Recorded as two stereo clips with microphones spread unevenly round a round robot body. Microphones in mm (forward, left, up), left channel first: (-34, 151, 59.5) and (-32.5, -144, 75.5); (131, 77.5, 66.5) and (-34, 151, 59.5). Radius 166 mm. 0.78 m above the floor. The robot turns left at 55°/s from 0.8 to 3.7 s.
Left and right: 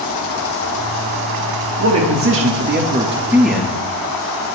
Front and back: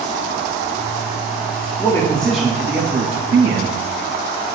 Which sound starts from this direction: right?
A man speaking, at 1.8 s.